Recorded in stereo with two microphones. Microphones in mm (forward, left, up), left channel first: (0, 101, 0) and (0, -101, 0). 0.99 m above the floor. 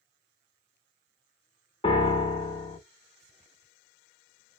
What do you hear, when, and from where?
1.8 s a piano: 30° left (ahead or behind), 0.8 m